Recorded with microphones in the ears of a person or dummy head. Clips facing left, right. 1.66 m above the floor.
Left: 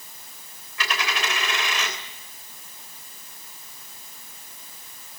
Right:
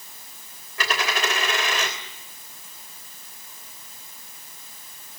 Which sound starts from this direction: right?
A dropped coin, at 0.8 s.